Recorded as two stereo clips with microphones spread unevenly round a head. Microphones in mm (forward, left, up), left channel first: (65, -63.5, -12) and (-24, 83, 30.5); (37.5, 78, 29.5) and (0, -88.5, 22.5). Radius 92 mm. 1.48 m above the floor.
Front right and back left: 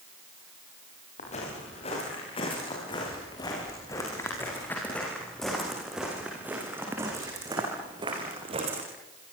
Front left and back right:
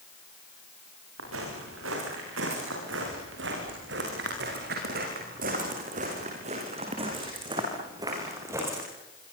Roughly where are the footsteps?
Behind right.